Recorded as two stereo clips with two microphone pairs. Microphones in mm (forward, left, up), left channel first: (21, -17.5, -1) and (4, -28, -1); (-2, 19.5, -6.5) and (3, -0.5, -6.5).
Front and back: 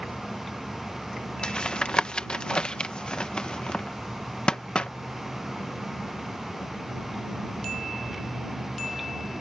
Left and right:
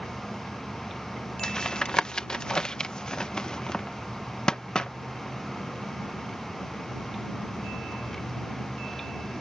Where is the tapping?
60° left.